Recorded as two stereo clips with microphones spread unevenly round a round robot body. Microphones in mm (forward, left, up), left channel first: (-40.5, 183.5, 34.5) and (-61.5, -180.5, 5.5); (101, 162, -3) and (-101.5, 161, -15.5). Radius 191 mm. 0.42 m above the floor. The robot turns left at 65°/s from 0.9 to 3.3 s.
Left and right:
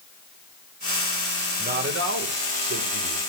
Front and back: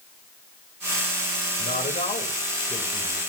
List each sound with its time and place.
1.6 s a man speaking: 35° right, 1.8 m; by 3.2 s 140° right, 1.8 m